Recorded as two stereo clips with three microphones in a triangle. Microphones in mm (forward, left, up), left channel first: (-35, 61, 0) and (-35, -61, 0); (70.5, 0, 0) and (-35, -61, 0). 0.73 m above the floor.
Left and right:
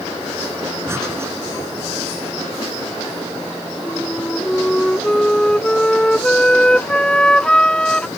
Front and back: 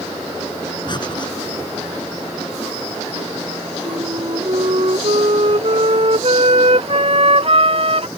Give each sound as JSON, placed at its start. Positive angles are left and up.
{"t": 0.9, "sound": "breathing", "azimuth_deg": -20}
{"t": 3.9, "sound": "a flute", "azimuth_deg": 175}